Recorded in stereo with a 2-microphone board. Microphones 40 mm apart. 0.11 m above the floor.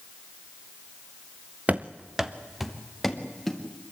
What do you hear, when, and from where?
1.7 s running footsteps: 35° right (ahead or behind), 0.8 m; by 3.6 s 5° left (ahead or behind), 3.5 m